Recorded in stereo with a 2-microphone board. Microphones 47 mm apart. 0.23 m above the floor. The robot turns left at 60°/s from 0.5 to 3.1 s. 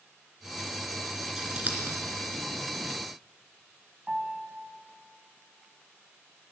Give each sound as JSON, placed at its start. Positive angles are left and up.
{"t": 1.4, "sound": "scissors", "side_deg": -15, "distance_m": 2.5}
{"t": 4.1, "sound": "a piano", "side_deg": -25, "distance_m": 1.5}